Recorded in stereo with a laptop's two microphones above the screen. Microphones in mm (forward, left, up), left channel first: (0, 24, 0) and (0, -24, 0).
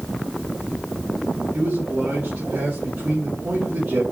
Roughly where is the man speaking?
Right.